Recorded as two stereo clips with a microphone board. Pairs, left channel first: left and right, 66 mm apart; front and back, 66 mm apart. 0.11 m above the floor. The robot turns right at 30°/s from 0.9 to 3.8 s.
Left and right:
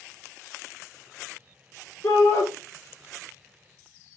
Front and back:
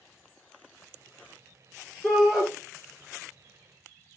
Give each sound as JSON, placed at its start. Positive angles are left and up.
{"t": 2.0, "sound": "a shout", "azimuth_deg": 90, "distance_m": 2.0}